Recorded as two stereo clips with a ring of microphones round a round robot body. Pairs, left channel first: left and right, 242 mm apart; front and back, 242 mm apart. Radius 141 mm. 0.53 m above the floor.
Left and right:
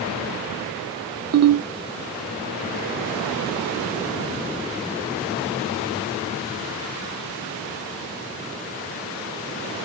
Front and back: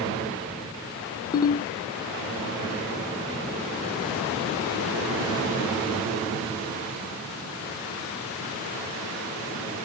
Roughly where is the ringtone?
Right.